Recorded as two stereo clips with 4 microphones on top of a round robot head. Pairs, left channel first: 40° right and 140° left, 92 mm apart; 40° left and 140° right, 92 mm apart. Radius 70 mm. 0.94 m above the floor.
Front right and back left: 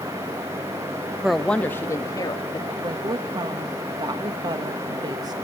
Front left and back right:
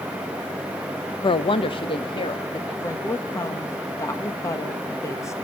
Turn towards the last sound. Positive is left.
turn(degrees=95)